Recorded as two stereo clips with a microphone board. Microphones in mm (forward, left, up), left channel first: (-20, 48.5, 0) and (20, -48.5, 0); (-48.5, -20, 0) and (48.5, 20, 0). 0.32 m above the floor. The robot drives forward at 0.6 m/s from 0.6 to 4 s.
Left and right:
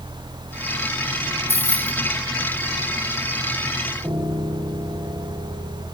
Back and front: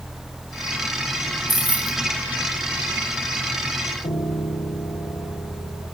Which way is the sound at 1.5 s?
95° left.